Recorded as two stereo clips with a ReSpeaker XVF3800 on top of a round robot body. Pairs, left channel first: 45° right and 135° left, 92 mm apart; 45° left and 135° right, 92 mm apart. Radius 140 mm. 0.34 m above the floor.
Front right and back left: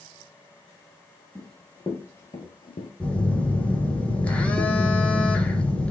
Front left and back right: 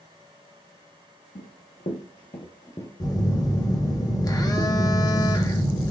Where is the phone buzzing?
25° left, 1.1 m.